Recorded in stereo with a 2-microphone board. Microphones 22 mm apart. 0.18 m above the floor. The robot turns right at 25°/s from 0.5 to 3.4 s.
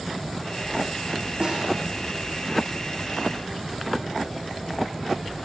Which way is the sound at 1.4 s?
35° right (ahead or behind).